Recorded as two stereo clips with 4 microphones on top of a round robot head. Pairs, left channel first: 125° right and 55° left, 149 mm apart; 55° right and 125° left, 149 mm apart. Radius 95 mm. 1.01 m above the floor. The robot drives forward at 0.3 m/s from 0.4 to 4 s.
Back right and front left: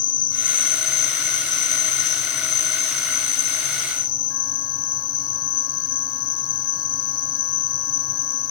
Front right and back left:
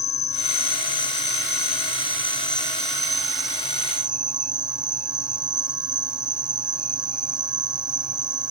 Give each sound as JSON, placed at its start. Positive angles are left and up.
{"t": 0.0, "sound": "an insect", "azimuth_deg": -100}